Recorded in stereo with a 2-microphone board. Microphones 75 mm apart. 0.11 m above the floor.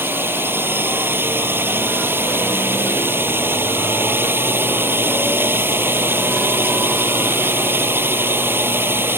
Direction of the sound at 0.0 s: 30° right (ahead or behind).